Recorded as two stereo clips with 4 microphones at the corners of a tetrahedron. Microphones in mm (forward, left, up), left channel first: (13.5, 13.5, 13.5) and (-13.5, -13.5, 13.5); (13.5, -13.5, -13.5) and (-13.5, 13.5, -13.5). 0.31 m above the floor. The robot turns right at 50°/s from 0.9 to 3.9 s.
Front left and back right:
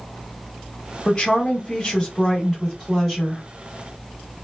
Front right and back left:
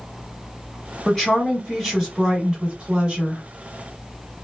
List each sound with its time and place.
1.1 s a woman speaking: 15° left, 1.4 m; by 3.4 s 135° left, 1.4 m